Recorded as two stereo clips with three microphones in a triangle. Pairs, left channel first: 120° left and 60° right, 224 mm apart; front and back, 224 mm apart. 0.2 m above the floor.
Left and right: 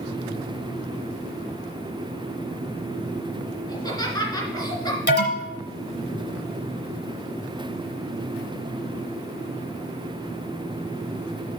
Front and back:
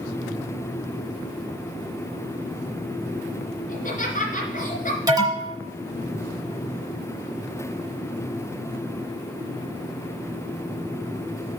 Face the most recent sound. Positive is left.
turn(degrees=115)